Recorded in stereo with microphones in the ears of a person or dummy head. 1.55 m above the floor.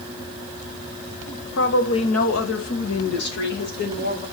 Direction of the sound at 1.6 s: 60° left (ahead or behind).